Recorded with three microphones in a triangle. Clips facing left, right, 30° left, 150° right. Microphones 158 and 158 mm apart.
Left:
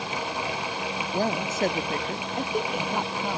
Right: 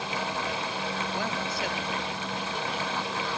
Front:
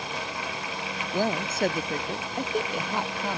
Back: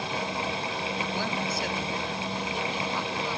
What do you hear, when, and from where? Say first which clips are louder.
1.1 s a woman speaking: left 5 dB, front 4 dB; 55° left; by 3.4 s 60° left